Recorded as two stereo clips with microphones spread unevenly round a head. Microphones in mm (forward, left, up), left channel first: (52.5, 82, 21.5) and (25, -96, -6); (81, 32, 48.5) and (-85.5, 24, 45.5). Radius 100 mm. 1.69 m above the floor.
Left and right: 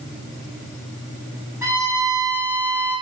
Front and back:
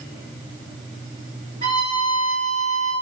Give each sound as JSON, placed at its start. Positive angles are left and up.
{"t": 1.6, "sound": "a violin", "azimuth_deg": -170, "distance_m": 1.4}